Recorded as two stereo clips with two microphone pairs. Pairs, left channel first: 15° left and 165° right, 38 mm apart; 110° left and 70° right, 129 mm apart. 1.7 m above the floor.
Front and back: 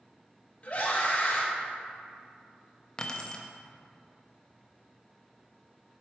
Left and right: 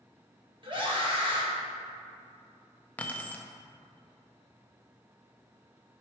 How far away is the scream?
About 1.0 m.